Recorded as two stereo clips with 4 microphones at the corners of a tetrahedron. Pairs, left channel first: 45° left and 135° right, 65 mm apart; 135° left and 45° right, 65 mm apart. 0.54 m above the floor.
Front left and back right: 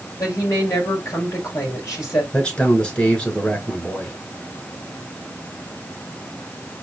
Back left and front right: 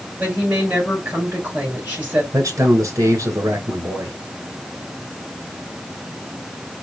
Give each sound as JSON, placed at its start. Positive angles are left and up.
{"t": 0.2, "sound": "a woman speaking", "azimuth_deg": 15, "distance_m": 3.5}
{"t": 2.3, "sound": "a man speaking", "azimuth_deg": -20, "distance_m": 2.0}